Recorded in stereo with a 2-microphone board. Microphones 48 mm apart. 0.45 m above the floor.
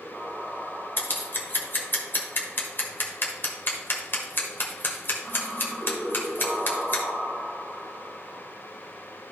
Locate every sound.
1.0 s scissors: 50° left (ahead or behind), 1.3 m